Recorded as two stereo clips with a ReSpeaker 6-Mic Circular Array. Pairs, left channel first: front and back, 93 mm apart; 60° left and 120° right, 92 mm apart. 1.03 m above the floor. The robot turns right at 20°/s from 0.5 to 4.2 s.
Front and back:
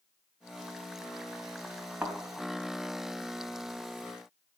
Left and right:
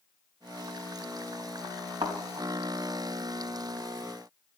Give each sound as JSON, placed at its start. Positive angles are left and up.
{"t": 2.0, "sound": "a thud", "azimuth_deg": -100, "distance_m": 3.5}